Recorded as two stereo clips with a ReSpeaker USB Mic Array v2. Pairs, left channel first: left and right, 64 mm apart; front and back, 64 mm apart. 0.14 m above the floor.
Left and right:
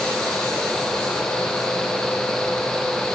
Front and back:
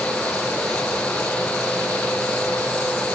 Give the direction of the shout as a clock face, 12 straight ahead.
I don't hear a shout.